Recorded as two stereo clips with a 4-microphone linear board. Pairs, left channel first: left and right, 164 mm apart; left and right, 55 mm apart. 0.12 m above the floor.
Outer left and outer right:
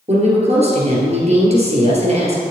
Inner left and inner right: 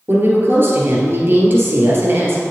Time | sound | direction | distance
0.1 | a woman speaking | 40° right (ahead or behind) | 2 m